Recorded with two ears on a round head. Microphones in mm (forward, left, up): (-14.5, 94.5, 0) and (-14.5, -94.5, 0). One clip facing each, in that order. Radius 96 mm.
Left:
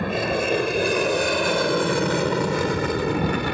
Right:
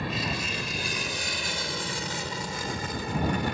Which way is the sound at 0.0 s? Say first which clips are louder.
Left 9 dB; 50° left (ahead or behind).